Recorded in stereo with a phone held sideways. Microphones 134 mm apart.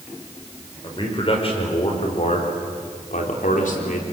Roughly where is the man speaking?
Left.